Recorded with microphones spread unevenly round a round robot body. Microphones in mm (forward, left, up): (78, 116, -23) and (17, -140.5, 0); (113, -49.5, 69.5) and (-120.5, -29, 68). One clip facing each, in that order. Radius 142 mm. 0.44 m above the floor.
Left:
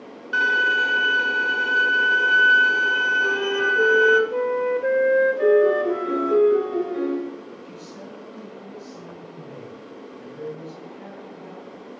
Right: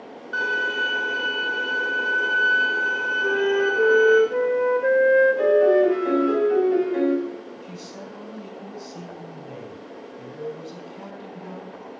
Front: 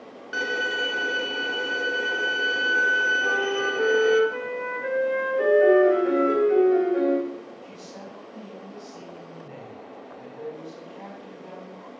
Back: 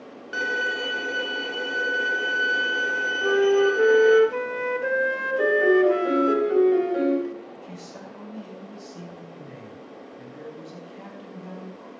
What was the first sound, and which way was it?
A violin, 85° left.